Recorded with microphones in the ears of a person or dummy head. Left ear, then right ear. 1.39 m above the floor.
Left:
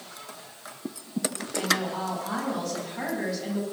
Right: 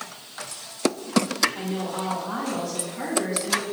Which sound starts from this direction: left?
A woman speaking, at 1.6 s.